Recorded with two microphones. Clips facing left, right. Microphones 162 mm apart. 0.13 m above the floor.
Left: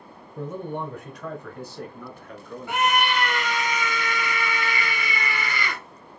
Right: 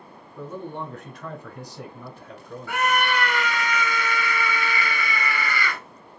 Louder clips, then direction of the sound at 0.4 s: Left 3 dB; 20° left (ahead or behind).